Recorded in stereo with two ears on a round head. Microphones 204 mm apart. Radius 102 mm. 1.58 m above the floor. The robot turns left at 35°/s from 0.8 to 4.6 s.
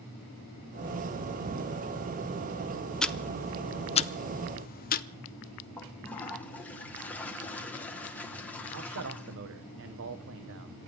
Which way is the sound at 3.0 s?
5° left (ahead or behind).